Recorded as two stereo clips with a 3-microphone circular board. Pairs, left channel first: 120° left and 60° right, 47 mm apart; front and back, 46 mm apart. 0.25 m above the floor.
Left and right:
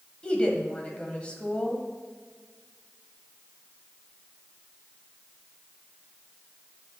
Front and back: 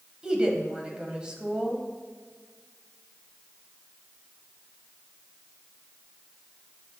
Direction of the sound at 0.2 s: 145° left.